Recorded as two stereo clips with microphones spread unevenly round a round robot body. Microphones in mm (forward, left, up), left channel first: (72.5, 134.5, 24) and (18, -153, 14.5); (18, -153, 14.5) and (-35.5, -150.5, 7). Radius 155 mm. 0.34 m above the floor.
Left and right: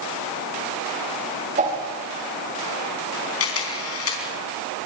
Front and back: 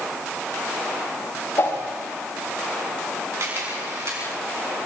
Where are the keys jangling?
No keys jangling in this recording.